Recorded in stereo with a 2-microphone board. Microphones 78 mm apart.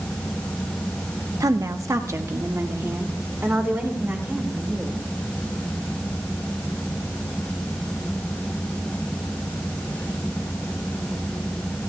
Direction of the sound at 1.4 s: 50° right (ahead or behind).